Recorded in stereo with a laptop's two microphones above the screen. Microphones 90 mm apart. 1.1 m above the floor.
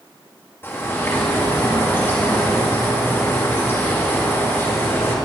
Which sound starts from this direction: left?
A bird, at 0.6 s.